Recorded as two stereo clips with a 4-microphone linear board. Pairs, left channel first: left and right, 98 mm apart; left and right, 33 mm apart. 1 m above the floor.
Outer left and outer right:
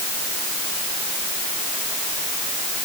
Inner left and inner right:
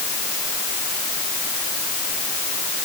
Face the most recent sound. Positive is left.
No sound to turn to.